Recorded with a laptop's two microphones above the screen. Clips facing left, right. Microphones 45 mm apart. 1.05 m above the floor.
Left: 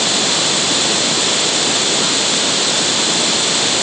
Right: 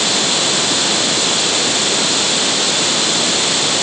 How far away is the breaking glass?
No breaking glass in this recording.